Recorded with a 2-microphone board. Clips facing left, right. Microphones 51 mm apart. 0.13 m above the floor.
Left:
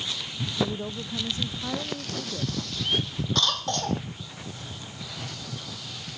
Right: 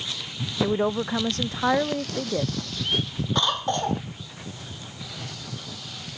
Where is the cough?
15° right (ahead or behind).